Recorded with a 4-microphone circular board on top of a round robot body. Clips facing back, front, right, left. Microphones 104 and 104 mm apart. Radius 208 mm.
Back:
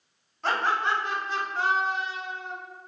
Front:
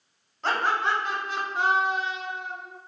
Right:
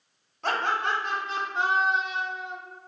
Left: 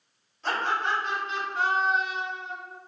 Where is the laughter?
80° right, 1.0 m; by 2.5 s 65° left, 0.7 m.